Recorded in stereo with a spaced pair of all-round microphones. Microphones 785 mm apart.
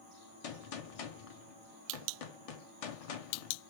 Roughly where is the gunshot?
Left.